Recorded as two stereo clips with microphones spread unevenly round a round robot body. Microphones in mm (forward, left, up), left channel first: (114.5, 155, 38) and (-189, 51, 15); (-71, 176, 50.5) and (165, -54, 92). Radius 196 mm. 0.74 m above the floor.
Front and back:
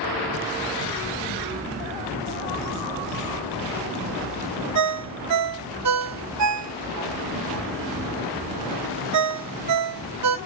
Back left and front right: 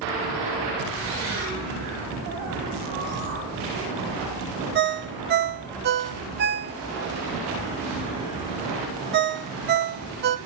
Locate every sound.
4.8 s a ringtone: 110° right, 0.6 m